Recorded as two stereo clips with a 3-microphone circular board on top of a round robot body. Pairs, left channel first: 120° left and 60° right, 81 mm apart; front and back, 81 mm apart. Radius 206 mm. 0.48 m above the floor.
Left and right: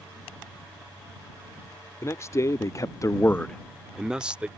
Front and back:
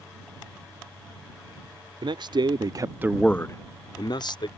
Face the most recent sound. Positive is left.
turn(degrees=15)